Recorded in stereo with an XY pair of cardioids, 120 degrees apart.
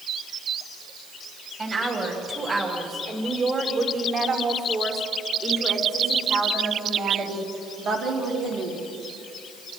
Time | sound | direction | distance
1.6 | a woman speaking | 35° right | 6 m